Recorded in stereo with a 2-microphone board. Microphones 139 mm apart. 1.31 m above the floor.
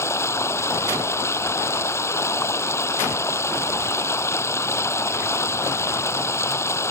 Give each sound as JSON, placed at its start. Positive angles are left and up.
{"t": 0.0, "sound": "running water", "side_deg": 20}